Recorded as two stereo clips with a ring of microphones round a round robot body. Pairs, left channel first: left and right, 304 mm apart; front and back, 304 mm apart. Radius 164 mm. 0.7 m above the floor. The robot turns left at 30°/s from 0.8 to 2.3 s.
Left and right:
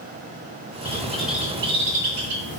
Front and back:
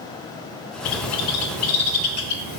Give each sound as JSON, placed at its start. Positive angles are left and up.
{"t": 0.8, "sound": "a bird", "azimuth_deg": 10, "distance_m": 0.7}